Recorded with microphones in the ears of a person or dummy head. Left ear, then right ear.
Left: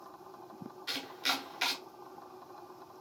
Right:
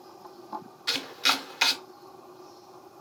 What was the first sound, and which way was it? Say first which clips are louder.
Chopping: right 8 dB; 20° right (ahead or behind).